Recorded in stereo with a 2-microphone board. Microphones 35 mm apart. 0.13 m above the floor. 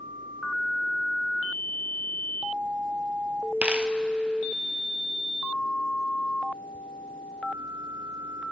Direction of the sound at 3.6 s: 35° right (ahead or behind).